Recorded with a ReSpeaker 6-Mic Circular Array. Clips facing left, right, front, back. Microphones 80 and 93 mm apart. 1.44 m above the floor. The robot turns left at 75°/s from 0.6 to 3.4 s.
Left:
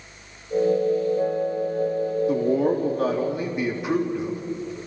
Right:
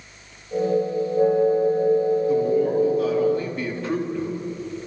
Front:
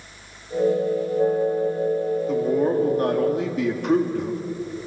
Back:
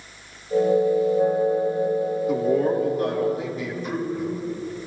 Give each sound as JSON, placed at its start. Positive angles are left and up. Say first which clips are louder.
{"t": 2.3, "sound": "a man speaking", "louder": "right 1 dB, back 1 dB", "azimuth_deg": 100, "distance_m": 4.0}